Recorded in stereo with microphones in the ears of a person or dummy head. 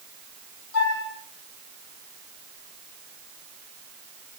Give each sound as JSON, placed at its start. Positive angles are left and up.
{"t": 0.7, "sound": "a flute", "side_deg": 80, "distance_m": 8.0}